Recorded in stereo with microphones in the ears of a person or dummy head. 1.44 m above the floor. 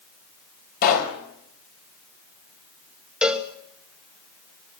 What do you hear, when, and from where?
0.8 s a pop: 45° left (ahead or behind), 5.5 m
3.2 s a cowbell: centre (ahead or behind), 2.5 m